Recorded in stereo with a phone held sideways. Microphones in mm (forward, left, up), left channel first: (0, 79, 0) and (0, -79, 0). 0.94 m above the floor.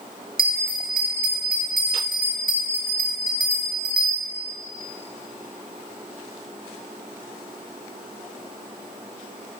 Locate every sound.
0.4 s a bell: 70° right (ahead or behind), 1.3 m